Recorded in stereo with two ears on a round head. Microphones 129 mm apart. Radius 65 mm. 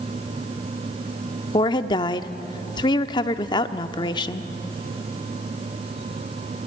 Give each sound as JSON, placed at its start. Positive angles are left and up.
{"t": 1.5, "sound": "a woman speaking", "side_deg": 30, "distance_m": 0.7}